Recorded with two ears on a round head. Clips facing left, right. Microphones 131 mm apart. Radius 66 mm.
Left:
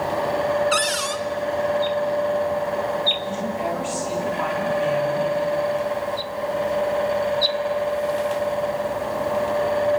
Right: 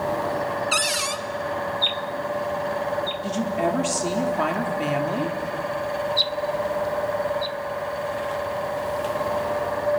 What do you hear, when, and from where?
0.7 s a cupboard door: 10° right (ahead or behind), 1.0 m
3.2 s a woman speaking: 60° right (ahead or behind), 3 m